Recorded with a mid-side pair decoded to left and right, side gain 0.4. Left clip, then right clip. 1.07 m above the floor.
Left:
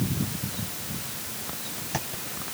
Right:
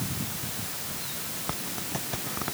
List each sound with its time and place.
Only background noise.